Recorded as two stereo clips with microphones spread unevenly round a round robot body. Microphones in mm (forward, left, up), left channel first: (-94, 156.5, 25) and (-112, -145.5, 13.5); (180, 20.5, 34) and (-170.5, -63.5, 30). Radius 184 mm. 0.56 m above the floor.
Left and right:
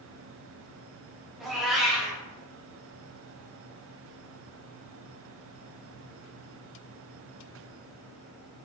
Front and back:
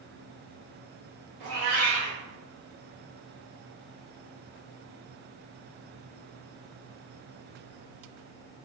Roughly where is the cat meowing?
Behind.